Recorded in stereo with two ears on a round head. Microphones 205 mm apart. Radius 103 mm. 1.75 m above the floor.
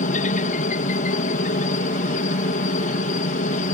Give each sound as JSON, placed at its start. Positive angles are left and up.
{"t": 0.0, "sound": "a helicopter", "side_deg": 35}